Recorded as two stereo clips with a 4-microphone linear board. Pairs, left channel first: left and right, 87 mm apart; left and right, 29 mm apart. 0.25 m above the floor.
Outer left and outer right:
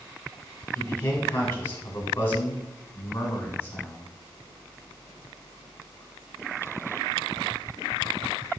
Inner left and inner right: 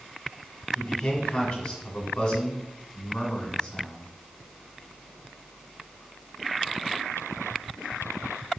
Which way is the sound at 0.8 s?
25° left (ahead or behind).